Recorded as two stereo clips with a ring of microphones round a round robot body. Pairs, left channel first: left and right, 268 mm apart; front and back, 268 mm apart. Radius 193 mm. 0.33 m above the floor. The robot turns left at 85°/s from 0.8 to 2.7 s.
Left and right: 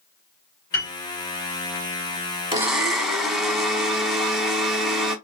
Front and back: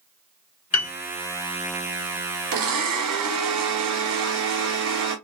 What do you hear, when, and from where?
0.7 s a piano: 30° left, 0.9 m; by 0.9 s 20° left, 0.9 m
2.5 s a blender: 165° right, 1.1 m; by 5.2 s straight behind, 1.1 m